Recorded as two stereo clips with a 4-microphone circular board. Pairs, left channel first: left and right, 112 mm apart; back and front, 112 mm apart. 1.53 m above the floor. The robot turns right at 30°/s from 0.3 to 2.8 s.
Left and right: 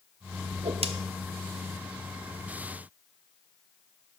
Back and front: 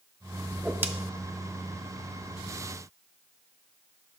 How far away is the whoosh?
About 0.5 m.